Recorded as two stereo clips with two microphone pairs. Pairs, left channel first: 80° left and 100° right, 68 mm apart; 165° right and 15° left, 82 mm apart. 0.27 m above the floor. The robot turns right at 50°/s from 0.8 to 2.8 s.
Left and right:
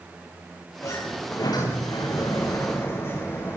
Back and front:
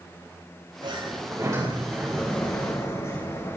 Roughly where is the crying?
I don't hear crying.